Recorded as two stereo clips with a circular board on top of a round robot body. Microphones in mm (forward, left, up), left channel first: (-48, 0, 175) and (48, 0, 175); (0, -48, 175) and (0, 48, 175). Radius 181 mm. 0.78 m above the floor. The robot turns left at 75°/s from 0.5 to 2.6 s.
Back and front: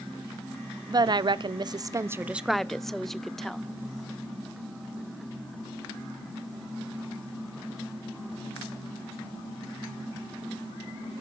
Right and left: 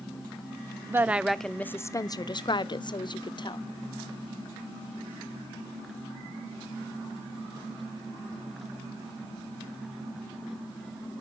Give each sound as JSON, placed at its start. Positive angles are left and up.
{"t": 0.9, "sound": "a woman speaking", "azimuth_deg": 35, "distance_m": 0.6}